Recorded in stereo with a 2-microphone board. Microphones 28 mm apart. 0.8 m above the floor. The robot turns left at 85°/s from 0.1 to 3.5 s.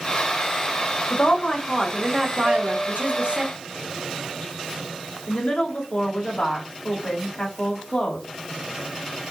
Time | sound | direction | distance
1.1 | a woman speaking | 70° left | 1.3 m
2.5 | a piano | 105° right | 1.9 m
5.3 | a woman speaking | 50° left (ahead or behind) | 2 m